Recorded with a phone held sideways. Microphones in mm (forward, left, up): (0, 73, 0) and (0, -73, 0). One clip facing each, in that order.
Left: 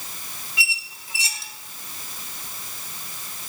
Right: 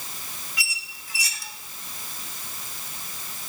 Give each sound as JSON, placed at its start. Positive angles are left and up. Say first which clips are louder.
{"t": 0.6, "sound": "a squeak", "louder": "left 7 dB", "side_deg": 25, "distance_m": 0.8}